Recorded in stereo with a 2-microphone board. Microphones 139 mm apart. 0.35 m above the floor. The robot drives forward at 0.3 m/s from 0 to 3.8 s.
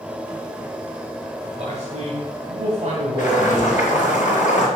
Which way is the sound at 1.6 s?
50° right (ahead or behind).